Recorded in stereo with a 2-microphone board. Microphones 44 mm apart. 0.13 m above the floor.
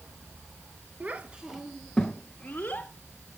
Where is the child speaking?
35° right (ahead or behind), 1.5 m; by 2.9 s 30° left (ahead or behind), 2.5 m.